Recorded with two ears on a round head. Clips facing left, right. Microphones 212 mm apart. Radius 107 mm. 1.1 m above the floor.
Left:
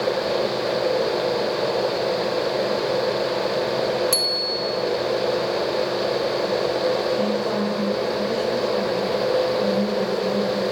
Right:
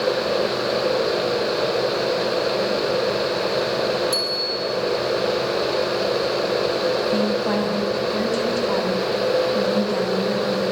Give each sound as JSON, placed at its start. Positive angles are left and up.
{"t": 4.1, "sound": "a bicycle bell", "side_deg": 35, "distance_m": 3.0}
{"t": 7.1, "sound": "a woman speaking", "side_deg": -80, "distance_m": 6.5}